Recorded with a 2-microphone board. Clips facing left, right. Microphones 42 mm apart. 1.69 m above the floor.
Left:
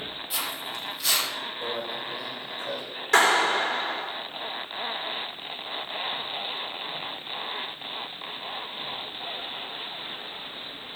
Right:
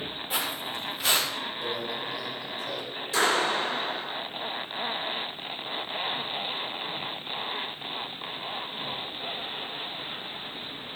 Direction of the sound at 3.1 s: 75° left (ahead or behind).